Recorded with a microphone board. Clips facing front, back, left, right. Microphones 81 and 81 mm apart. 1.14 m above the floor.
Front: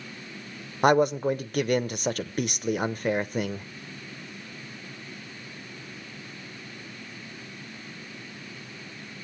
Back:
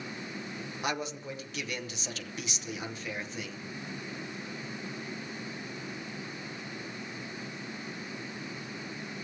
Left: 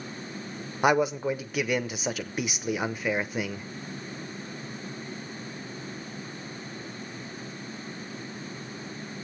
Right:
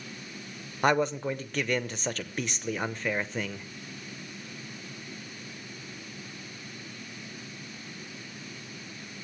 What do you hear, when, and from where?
0.8 s a man speaking: 10° left, 0.8 m